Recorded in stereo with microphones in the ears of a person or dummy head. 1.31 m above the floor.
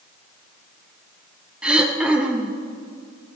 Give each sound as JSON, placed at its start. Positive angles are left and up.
{"t": 1.6, "sound": "throat clearing", "side_deg": -5, "distance_m": 0.7}